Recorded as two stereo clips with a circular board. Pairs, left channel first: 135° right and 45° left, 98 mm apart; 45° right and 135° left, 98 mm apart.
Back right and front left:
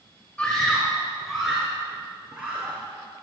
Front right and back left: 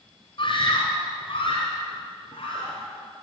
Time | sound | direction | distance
0.4 | a scream | 60° right | 3 m